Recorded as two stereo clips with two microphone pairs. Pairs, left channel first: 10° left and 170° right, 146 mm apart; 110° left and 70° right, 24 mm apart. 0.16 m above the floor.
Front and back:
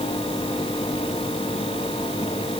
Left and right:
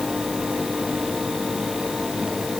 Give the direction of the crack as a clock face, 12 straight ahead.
No crack in this recording.